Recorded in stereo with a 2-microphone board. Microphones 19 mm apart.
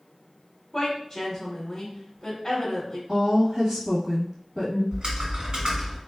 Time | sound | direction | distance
0.7 | a woman speaking | 15° left (ahead or behind) | 1.3 m
3.1 | a woman speaking | 20° right (ahead or behind) | 1.2 m
4.9 | typing on a keyboard | 60° right (ahead or behind) | 1.3 m